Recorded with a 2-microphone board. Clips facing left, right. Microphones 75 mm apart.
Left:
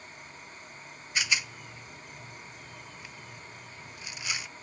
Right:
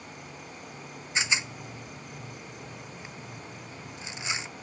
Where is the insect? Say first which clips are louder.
Right 4 dB; 65° right (ahead or behind).